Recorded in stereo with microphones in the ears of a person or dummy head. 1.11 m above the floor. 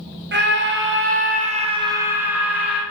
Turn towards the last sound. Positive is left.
turn(degrees=10)  # may be behind; listen again after turning